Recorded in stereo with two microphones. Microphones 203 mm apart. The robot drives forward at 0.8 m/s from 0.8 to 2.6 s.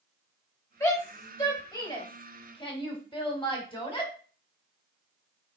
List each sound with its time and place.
0.8 s a shout: 15° left (ahead or behind), 4 m; by 4.1 s 25° left (ahead or behind), 2.5 m